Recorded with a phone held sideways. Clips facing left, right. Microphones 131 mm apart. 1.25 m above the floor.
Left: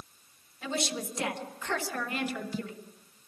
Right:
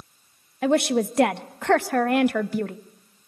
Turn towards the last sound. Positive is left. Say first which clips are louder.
# right 13 dB
turn(degrees=-65)  # may be behind; listen again after turning